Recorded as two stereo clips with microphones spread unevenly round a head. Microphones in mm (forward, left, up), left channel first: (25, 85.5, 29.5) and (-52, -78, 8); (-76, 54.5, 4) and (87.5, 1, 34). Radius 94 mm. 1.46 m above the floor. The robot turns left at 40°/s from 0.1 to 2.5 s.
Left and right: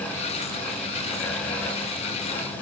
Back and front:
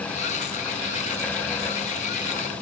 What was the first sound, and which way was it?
Only background noise.